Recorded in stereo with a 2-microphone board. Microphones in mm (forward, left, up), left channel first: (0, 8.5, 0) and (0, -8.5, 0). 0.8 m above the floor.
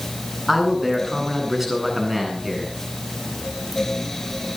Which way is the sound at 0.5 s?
15° right (ahead or behind).